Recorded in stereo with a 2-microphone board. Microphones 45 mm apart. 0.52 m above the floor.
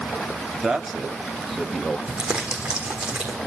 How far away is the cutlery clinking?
I don't hear cutlery clinking.